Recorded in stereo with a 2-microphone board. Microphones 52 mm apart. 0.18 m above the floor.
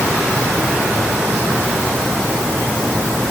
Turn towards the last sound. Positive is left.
No sound to turn to.